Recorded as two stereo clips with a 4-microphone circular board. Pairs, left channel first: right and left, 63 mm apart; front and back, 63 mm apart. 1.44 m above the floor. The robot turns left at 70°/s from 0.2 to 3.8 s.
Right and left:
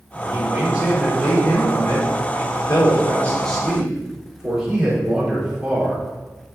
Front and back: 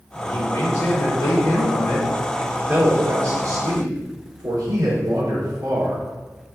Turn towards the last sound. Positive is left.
turn(degrees=165)